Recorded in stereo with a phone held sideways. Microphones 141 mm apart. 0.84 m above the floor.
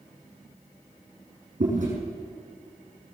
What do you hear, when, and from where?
1.6 s chewing: 60° right (ahead or behind), 6 m